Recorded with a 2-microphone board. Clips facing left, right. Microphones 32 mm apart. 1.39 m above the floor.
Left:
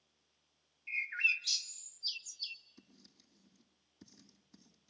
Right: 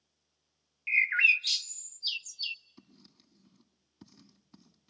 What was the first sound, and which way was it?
A bird, 65° right (ahead or behind).